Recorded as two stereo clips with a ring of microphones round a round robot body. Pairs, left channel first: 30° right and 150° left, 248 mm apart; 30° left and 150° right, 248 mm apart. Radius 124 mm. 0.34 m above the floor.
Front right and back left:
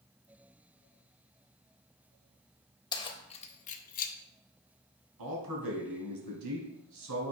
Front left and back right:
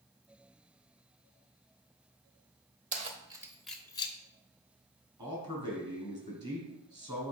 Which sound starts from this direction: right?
Keys jangling, at 2.9 s.